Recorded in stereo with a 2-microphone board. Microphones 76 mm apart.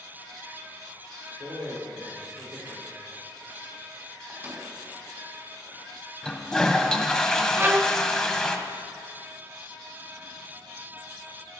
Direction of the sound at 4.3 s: 30° right (ahead or behind).